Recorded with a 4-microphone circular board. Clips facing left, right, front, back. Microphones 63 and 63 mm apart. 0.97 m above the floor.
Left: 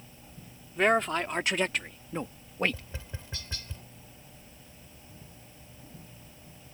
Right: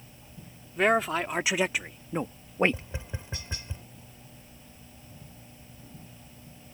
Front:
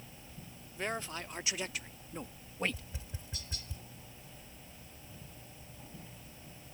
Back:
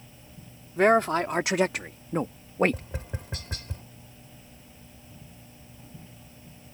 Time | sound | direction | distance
0.8 | a man speaking | straight behind | ?
2.7 | tapping | 160° right | ?